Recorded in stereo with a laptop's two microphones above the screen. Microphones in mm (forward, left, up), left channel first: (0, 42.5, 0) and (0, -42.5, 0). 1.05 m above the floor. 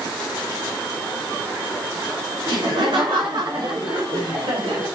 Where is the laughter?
80° right, 2.5 m; by 4.8 s 75° right (ahead or behind), 5 m.